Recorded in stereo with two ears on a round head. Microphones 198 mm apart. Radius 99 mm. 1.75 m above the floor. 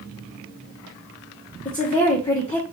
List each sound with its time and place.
1.6 s a woman speaking: 20° left (ahead or behind), 1.1 m